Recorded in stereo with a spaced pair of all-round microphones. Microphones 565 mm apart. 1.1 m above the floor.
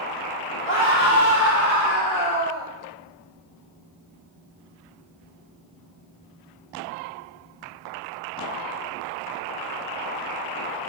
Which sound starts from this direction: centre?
A scream, at 0.7 s.